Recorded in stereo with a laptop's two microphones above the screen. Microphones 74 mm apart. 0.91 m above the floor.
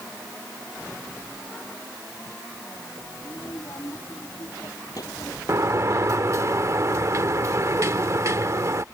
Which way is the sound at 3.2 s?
50° left (ahead or behind).